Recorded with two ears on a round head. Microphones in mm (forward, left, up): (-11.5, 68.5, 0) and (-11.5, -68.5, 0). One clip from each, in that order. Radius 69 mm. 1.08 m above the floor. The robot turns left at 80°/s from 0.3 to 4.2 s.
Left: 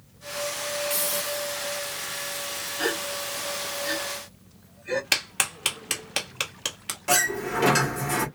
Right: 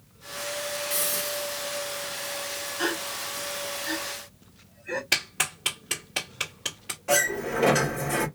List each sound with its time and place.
0.9 s a hiss: 5° left, 2.0 m; by 1.6 s 55° right, 2.0 m
2.8 s a gasp: 5° right (ahead or behind), 2.5 m; by 5.0 s 75° left (ahead or behind), 2.5 m
5.1 s a clap: 40° left (ahead or behind), 1.5 m
7.1 s a sliding door: 80° left, 1.7 m